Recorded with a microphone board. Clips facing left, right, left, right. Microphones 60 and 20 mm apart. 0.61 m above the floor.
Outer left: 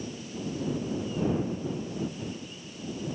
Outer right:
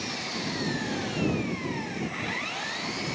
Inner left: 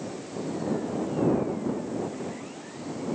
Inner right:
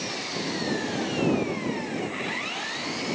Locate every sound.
0.0 s an engine running: 85° right